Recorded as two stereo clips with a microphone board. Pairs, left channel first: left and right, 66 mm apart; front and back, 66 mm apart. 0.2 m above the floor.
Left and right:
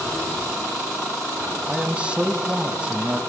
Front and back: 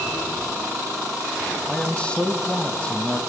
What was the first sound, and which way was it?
A man speaking, 45° right.